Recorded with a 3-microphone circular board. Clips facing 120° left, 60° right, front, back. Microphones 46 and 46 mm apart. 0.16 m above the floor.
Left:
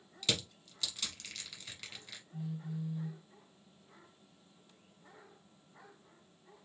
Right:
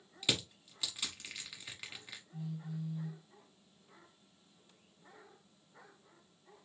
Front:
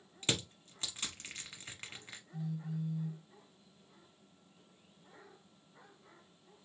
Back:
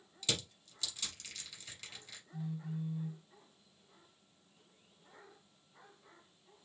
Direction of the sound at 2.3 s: 170° right.